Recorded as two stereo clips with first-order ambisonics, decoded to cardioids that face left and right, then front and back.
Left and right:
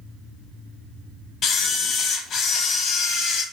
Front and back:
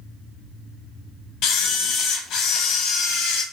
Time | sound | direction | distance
1.4 | a camera shutter | 35° left | 0.6 m